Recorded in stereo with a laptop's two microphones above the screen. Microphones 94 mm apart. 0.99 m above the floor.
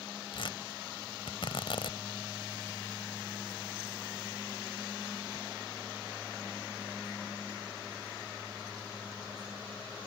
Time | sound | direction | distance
0.3 | tearing paper | 65° left (ahead or behind) | ?